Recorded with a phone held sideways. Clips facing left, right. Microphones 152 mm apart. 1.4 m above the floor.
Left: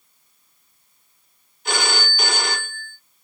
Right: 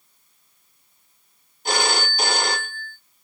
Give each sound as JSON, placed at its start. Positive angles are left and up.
{"t": 1.6, "sound": "a phone ringing", "side_deg": -35, "distance_m": 1.5}